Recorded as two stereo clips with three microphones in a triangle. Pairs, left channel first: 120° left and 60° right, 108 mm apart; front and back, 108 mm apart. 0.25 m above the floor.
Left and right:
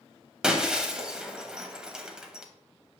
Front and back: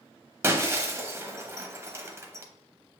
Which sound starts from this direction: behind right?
Breaking glass, at 0.4 s.